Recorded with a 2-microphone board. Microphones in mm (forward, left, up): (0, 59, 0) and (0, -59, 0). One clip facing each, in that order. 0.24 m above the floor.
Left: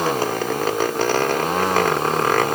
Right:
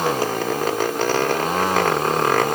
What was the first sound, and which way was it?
Only background noise.